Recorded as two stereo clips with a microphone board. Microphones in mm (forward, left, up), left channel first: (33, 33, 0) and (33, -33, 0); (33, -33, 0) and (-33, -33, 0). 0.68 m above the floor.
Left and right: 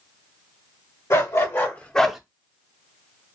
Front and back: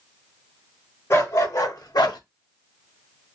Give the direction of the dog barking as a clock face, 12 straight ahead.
10 o'clock.